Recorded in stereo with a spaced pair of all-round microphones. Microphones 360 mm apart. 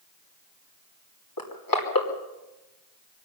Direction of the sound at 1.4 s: 70° left (ahead or behind).